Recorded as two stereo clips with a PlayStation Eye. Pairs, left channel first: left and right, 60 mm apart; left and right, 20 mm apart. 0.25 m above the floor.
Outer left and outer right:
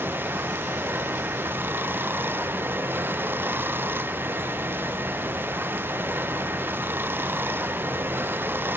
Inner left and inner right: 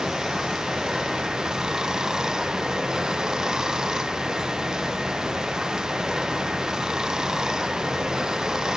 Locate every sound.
0.0 s running water: 35° right (ahead or behind)